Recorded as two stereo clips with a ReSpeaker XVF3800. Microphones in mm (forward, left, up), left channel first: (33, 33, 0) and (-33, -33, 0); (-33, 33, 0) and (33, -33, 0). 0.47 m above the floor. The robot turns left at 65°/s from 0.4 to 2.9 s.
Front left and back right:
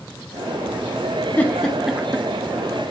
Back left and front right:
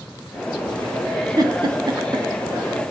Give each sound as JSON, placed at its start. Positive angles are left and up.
{"t": 1.4, "sound": "a giggle", "azimuth_deg": -20, "distance_m": 0.6}